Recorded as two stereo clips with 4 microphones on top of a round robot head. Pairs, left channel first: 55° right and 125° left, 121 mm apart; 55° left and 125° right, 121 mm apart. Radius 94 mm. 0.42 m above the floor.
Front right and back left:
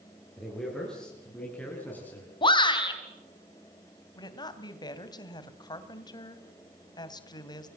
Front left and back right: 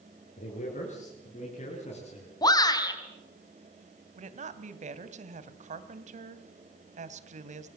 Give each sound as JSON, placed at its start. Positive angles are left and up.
{"t": 0.4, "sound": "a man speaking", "azimuth_deg": 35, "distance_m": 8.0}
{"t": 2.4, "sound": "a shout", "azimuth_deg": -5, "distance_m": 4.5}
{"t": 4.2, "sound": "a woman speaking", "azimuth_deg": -110, "distance_m": 2.5}